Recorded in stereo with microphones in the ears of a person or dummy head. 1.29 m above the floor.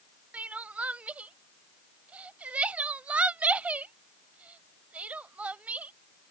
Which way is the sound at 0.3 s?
5° right (ahead or behind).